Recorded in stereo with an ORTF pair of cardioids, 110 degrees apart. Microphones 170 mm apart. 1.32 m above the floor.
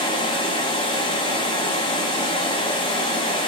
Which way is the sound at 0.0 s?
30° left.